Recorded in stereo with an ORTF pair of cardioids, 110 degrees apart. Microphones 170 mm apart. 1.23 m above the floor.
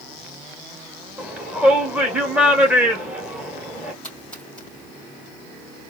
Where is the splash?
5° left, 3 m.